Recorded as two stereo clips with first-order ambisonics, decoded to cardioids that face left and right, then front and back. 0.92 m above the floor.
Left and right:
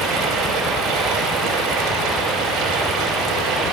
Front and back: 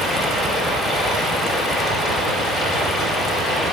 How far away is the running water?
About 4.5 m.